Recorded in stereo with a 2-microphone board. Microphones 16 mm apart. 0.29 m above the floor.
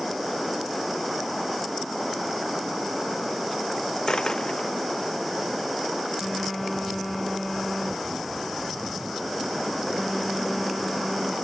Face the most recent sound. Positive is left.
turn(degrees=5)  # may be behind; listen again after turning